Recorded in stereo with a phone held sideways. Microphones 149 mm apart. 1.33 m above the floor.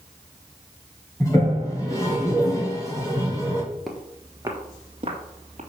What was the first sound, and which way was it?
A toilet flushing, 20° left (ahead or behind).